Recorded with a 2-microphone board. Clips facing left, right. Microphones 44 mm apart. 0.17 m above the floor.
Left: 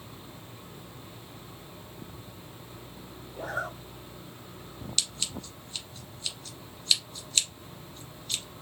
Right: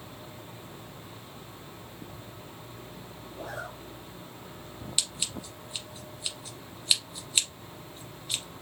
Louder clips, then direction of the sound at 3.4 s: Left 5 dB; 40° left (ahead or behind).